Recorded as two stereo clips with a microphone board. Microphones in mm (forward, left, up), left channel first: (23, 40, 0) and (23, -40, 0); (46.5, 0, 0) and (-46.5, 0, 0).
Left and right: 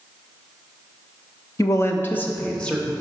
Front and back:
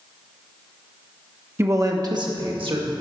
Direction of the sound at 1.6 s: 120° left.